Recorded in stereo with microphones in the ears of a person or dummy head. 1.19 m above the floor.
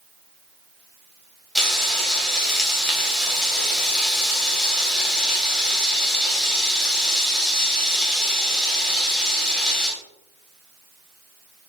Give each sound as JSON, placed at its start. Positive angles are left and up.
{"t": 1.6, "sound": "frying", "side_deg": 0, "distance_m": 3.0}